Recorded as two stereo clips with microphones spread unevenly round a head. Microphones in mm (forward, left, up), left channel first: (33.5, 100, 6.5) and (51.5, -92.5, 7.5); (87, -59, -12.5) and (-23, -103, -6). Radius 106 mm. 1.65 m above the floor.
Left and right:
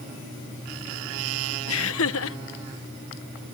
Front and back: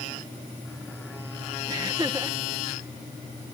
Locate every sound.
1.7 s laughter: 130° left